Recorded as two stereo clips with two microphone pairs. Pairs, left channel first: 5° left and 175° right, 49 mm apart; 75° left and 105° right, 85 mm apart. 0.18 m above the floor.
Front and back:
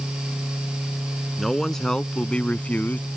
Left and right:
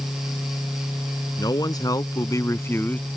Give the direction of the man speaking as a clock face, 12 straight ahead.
9 o'clock.